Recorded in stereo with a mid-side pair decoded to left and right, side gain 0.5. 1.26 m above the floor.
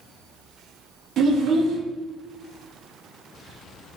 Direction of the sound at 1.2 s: 55° right.